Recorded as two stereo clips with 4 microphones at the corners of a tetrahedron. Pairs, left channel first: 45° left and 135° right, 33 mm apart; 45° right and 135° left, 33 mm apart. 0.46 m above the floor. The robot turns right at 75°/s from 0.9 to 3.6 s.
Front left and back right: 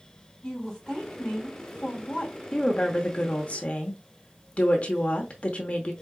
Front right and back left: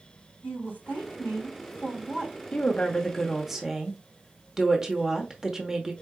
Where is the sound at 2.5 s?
15° right, 0.9 m; by 5.9 s 65° left, 0.9 m.